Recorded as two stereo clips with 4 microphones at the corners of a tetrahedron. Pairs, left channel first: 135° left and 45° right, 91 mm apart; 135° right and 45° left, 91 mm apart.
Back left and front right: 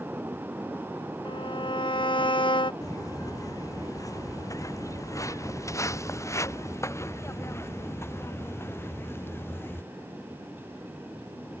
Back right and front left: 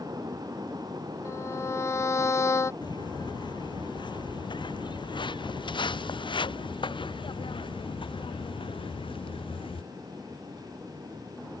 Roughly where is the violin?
Behind.